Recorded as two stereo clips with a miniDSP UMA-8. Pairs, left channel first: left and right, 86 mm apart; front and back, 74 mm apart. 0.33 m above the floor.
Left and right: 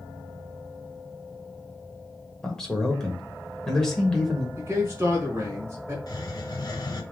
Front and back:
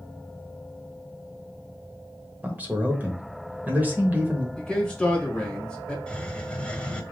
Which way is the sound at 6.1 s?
75° left.